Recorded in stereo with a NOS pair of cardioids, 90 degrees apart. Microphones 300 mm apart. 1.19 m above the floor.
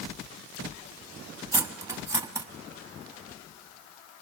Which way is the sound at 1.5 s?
10° right.